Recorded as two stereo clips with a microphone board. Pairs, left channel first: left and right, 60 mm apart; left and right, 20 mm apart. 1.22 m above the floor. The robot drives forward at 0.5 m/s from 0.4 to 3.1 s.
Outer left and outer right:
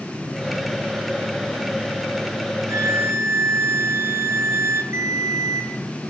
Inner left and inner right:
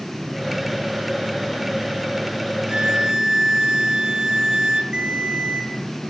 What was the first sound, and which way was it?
A violin, 55° right (ahead or behind).